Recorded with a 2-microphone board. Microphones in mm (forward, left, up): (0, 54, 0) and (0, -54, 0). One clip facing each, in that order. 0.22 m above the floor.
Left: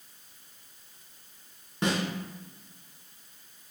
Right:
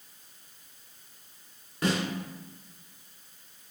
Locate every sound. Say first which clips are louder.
1.8 s a snare drum: even; 25° left (ahead or behind), 1.2 m